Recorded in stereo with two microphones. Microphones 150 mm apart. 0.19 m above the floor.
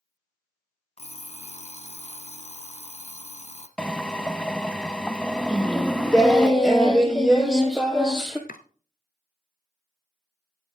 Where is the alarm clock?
45° left (ahead or behind), 1.2 m.